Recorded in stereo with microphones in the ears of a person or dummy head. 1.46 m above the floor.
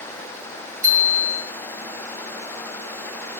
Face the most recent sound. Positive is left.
turn(degrees=-45)  # may be behind; listen again after turning